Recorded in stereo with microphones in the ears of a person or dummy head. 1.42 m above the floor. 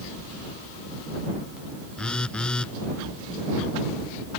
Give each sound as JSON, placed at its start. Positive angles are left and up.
{"t": 2.0, "sound": "a phone buzzing", "side_deg": 0}